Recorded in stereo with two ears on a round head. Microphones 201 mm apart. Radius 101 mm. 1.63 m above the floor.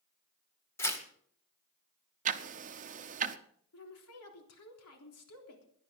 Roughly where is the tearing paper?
Centre.